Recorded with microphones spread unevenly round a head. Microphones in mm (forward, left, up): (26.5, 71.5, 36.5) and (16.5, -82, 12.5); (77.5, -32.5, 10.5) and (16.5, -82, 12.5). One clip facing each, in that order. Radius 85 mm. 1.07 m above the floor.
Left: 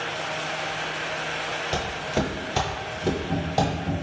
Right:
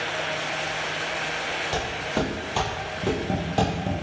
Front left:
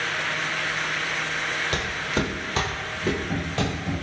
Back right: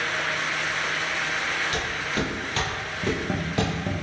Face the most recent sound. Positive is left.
turn(degrees=-120)